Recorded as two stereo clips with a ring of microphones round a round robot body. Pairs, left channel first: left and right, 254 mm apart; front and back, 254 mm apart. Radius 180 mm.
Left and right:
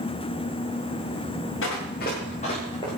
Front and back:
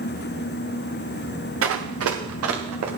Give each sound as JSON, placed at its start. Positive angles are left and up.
{"t": 1.6, "sound": "running footsteps", "azimuth_deg": 150, "distance_m": 3.0}